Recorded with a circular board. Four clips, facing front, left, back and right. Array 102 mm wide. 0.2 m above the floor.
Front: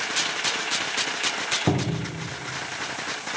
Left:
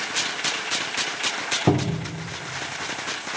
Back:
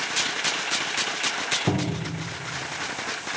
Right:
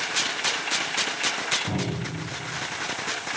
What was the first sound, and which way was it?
A cupboard door, 75° left.